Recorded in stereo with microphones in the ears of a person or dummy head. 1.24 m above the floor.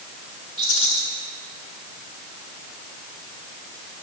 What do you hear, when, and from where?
0.6 s a rattle: 85° left, 8 m